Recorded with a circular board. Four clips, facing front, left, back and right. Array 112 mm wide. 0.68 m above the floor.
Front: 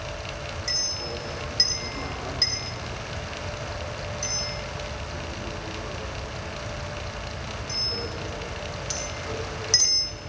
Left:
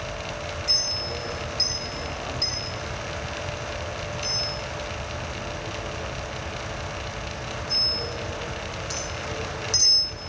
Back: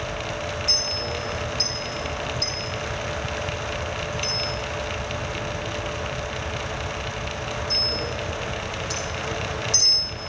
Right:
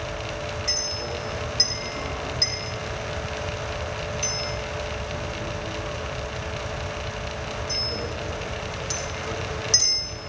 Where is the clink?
25° right, 4 m.